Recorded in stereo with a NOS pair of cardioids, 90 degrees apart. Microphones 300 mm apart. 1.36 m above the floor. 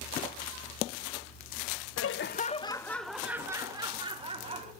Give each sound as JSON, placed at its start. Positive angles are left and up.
{"t": 2.0, "sound": "laughter", "azimuth_deg": 55, "distance_m": 1.2}